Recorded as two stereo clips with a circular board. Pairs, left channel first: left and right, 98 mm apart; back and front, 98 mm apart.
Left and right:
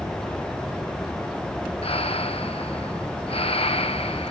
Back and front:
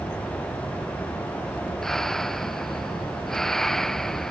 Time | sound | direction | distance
1.8 | breathing | 95° left | ?